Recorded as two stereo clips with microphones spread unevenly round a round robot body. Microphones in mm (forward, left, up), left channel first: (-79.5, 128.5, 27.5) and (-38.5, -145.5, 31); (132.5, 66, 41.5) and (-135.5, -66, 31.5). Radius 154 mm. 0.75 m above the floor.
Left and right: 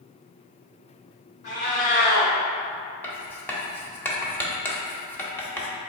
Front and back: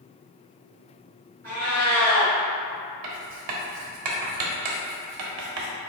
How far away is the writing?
About 0.6 m.